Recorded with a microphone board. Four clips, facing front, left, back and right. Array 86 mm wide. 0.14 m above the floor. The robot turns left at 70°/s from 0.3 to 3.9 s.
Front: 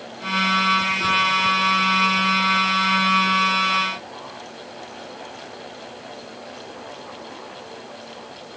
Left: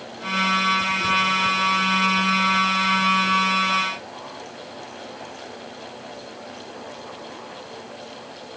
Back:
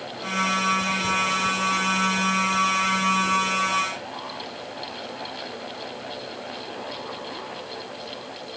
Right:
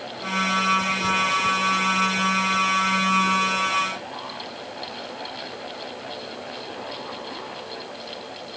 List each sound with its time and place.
Only background noise.